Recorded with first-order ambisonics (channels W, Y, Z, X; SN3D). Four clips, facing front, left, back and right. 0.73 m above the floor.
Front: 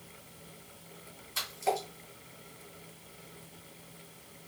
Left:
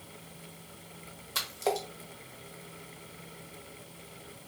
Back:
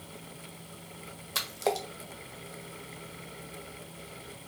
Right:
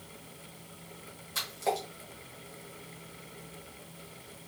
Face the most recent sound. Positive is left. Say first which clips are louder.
# left 1 dB, back 2 dB
turn(degrees=160)